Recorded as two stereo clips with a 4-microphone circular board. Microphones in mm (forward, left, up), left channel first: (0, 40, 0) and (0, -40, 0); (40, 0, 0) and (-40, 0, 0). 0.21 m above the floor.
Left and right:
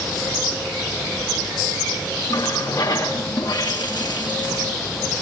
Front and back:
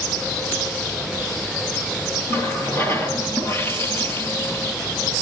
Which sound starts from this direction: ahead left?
A running tap, at 2.3 s.